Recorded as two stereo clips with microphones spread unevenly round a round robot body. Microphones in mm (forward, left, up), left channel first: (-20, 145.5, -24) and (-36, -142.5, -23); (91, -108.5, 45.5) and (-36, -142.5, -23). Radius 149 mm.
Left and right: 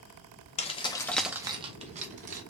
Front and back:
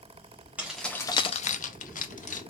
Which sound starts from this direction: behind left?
Keys jangling, at 0.6 s.